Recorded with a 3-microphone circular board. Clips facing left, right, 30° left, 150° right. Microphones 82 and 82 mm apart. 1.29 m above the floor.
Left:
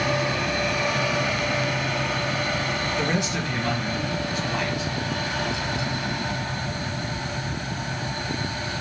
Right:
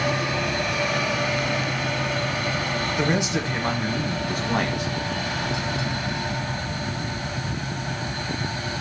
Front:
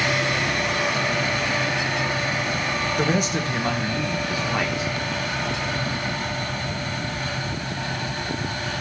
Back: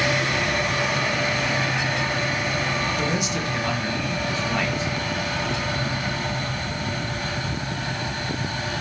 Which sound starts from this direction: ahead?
A man speaking, at 3.0 s.